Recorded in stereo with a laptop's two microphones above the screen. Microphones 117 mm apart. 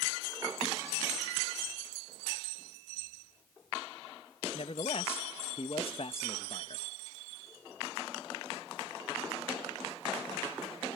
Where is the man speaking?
50° left (ahead or behind).